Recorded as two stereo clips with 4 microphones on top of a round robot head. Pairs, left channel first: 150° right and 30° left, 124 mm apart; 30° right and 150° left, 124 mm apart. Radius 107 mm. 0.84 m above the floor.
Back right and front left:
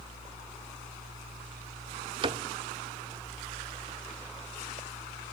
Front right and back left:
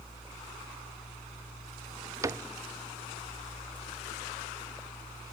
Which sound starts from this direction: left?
A cupboard door, at 2.2 s.